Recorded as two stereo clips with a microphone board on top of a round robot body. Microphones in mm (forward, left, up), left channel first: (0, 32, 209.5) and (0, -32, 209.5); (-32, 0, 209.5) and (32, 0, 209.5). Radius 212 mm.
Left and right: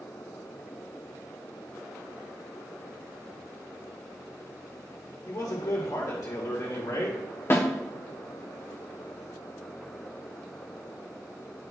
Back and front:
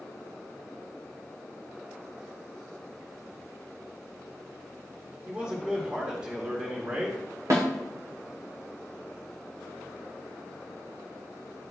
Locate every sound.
5.3 s a man speaking: 65° left, 1.7 m
7.5 s a snare drum: 40° left, 1.1 m